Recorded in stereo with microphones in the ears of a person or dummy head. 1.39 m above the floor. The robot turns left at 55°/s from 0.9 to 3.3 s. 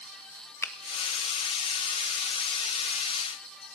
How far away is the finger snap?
About 0.7 m.